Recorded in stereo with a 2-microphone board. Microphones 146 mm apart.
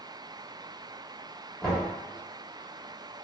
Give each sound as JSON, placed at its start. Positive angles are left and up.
{"t": 1.6, "sound": "knocking", "side_deg": 5, "distance_m": 1.3}